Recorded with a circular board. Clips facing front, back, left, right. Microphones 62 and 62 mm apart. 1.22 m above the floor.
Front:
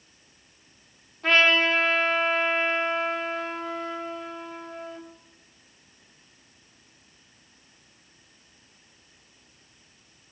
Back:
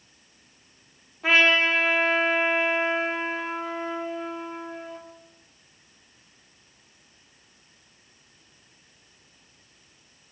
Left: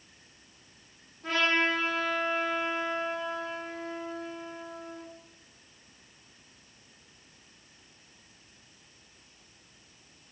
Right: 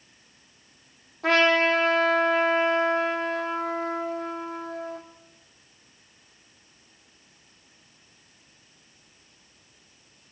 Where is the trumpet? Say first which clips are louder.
Even, right 7 dB; 100° right, 4 m.